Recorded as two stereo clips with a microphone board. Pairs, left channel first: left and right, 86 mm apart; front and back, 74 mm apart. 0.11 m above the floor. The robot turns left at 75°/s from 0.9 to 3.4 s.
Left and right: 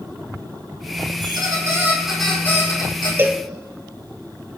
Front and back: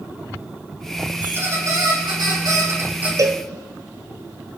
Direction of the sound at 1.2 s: 110° right.